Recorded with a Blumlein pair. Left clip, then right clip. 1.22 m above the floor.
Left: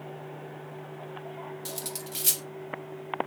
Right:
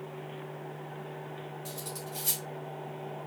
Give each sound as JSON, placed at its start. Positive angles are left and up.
{"t": 1.6, "sound": "cutlery clinking", "azimuth_deg": 60, "distance_m": 1.3}